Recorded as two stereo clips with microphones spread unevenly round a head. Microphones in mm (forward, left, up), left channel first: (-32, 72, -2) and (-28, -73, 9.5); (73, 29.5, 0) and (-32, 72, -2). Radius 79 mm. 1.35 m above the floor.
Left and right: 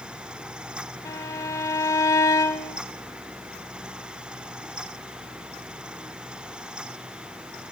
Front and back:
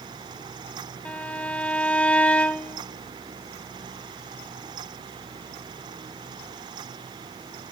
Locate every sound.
1.1 s a violin: 40° left, 1.3 m